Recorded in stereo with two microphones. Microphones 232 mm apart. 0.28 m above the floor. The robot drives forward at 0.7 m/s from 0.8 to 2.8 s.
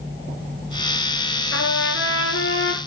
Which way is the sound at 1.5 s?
75° left (ahead or behind).